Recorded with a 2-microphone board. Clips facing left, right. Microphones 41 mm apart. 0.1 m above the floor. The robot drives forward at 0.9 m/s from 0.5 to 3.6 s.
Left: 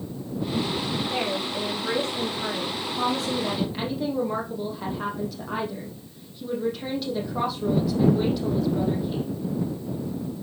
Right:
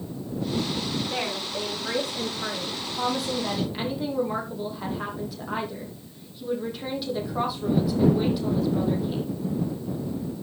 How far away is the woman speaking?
About 5.5 m.